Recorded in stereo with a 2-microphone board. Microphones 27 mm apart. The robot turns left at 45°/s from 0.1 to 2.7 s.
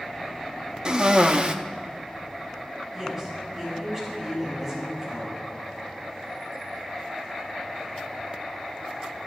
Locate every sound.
0.8 s a cough: 65° right, 0.8 m; by 1.6 s 95° right, 0.8 m
2.9 s a woman speaking: 15° right (ahead or behind), 6 m